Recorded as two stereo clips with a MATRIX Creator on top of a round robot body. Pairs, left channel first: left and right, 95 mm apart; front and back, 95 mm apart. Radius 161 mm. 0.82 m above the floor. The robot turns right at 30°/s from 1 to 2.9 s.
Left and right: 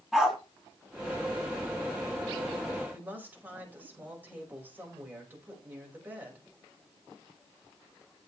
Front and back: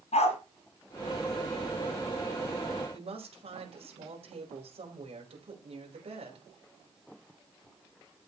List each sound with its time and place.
0.1 s a dog barking: 5° right, 3 m
2.9 s a woman speaking: 165° right, 5 m